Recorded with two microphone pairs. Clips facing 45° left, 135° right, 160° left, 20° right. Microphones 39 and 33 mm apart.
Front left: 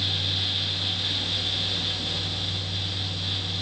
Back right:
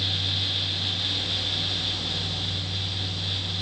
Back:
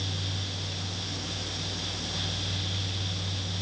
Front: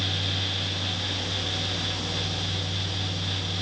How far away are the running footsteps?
I don't hear running footsteps.